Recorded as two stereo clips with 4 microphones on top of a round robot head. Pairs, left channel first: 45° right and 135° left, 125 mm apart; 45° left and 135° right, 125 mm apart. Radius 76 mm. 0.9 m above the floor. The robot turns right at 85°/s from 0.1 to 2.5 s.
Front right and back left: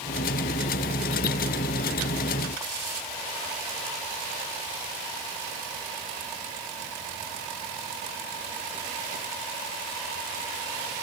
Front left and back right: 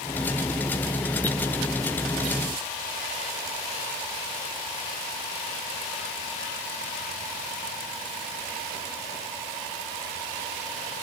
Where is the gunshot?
I don't hear a gunshot.